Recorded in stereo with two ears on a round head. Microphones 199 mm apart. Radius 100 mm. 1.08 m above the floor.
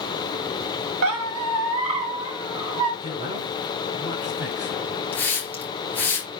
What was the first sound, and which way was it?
A squeak, 70° right (ahead or behind).